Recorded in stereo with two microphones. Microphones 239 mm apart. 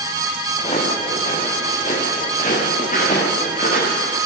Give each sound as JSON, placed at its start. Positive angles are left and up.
{"t": 0.6, "sound": "footsteps", "side_deg": 30, "distance_m": 6.5}